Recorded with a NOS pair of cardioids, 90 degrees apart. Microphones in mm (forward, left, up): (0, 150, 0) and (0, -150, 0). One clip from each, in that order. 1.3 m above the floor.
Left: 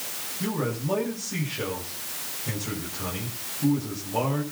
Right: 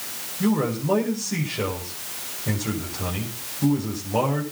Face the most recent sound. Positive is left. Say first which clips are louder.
# right 6 dB
turn(degrees=-40)